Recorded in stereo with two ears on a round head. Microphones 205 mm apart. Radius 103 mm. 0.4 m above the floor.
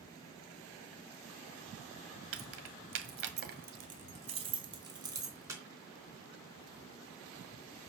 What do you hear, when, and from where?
2.3 s keys jangling: 70° right (ahead or behind), 1.7 m; by 5.6 s 10° right (ahead or behind), 3.5 m